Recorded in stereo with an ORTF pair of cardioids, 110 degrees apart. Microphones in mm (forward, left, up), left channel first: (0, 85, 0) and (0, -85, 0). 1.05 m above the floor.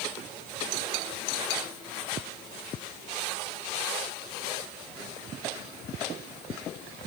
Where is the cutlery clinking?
No cutlery clinking in this recording.